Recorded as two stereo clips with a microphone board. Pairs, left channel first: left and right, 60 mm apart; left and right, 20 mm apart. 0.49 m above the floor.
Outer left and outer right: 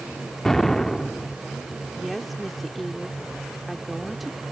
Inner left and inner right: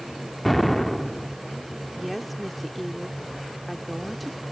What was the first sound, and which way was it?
An explosion, 5° left (ahead or behind).